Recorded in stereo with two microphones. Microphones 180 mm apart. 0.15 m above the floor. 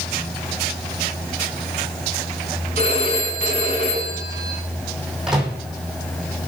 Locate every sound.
2.8 s a phone ringing: 35° left (ahead or behind), 9 m
5.3 s a microwave: 5° right (ahead or behind), 5.5 m